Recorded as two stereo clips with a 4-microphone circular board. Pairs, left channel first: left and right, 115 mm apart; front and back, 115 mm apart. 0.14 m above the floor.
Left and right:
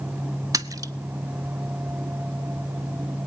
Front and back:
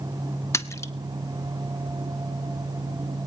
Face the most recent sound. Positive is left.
turn(degrees=-50)